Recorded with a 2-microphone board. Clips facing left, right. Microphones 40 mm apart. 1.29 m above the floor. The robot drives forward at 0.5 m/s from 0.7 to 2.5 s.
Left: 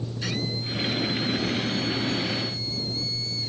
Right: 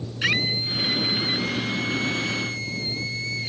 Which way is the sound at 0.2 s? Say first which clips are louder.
Right 8 dB; 75° right (ahead or behind).